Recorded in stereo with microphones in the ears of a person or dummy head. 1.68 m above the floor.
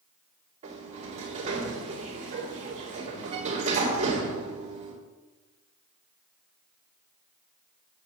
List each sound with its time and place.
0.6 s a sliding door: 35° right (ahead or behind), 2.5 m